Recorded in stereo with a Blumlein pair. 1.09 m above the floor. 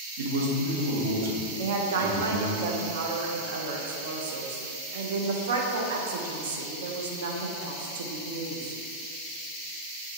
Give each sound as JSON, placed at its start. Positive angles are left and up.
{"t": 0.2, "sound": "a man speaking", "azimuth_deg": -65, "distance_m": 0.7}
{"t": 1.6, "sound": "a woman speaking", "azimuth_deg": -60, "distance_m": 0.5}